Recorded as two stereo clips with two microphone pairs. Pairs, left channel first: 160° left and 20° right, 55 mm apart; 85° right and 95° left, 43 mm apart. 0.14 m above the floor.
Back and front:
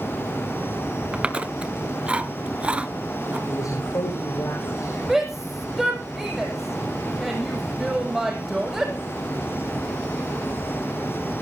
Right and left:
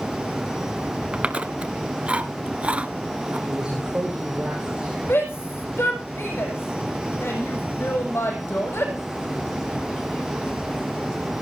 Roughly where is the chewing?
Ahead left.